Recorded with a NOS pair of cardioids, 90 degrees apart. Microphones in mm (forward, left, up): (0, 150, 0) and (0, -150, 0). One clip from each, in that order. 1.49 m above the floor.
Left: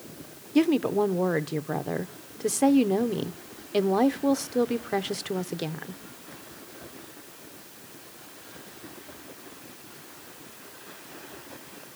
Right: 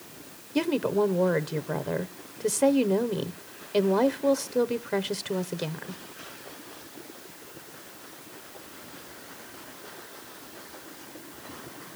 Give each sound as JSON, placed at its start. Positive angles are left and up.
{"t": 0.6, "sound": "a woman speaking", "azimuth_deg": 5, "distance_m": 0.9}